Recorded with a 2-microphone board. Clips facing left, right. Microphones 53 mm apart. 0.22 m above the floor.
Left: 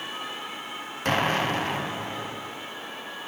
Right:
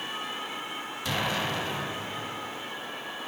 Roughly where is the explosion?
Left.